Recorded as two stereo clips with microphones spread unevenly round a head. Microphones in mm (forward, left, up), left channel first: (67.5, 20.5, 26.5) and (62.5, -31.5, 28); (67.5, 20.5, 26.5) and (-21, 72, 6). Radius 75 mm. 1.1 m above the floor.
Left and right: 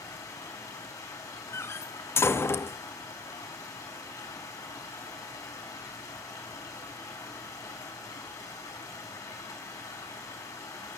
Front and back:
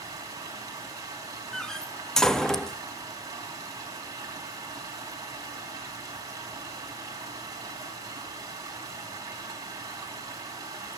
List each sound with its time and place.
0.0 s running water: 95° left, 5 m
1.5 s a door slam: 50° left, 0.9 m